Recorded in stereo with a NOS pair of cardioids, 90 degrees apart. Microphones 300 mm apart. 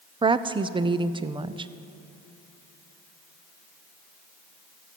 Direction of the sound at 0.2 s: 15° right.